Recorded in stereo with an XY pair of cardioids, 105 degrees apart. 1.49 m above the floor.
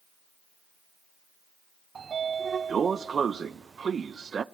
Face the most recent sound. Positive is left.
turn(degrees=-40)